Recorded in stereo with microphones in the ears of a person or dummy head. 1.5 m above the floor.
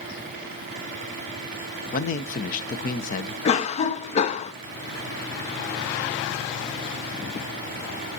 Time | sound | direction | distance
1.9 | a man speaking | 50° left (ahead or behind) | 0.7 m
3.5 | a cough | 45° left (ahead or behind) | 0.5 m